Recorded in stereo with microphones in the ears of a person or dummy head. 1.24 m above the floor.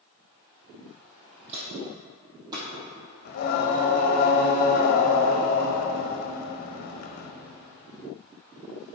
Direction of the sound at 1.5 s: 30° right (ahead or behind).